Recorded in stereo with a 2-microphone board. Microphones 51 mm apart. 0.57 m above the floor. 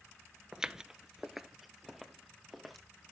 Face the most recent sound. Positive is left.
turn(degrees=0)  # may be behind; listen again after turning